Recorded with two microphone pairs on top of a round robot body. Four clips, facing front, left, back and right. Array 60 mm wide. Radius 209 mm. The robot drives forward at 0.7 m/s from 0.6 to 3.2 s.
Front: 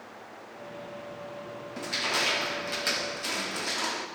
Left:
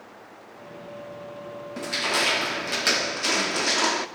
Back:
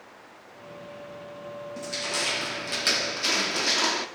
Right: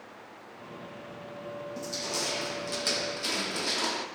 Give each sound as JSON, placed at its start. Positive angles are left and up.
{"t": 1.8, "sound": "crushing", "azimuth_deg": 70, "distance_m": 1.7}